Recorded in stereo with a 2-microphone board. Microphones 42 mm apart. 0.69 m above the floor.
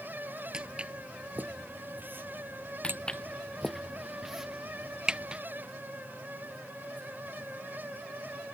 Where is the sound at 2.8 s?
25° left (ahead or behind); by 5.4 s 20° right (ahead or behind).